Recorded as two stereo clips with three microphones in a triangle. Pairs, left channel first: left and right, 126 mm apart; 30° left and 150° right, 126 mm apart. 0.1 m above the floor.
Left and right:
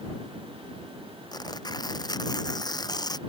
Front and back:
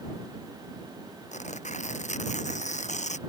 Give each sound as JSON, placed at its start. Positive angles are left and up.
{"t": 1.3, "sound": "tearing paper", "azimuth_deg": 35}